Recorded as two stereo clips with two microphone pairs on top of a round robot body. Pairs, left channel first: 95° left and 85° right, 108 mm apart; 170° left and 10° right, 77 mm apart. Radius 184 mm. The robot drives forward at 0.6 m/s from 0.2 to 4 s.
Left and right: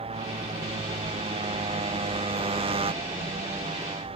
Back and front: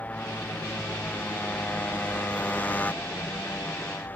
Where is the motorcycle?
115° right; by 4.2 s 120° right.